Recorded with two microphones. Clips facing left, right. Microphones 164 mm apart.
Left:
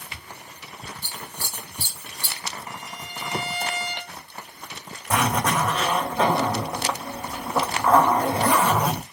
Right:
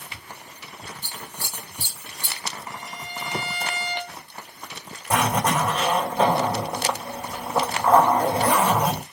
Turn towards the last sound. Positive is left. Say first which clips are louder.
# right 1 dB
turn(degrees=-10)  # may be behind; listen again after turning